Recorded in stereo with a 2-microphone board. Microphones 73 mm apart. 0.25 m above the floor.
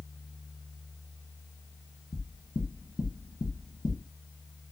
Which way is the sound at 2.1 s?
60° left (ahead or behind).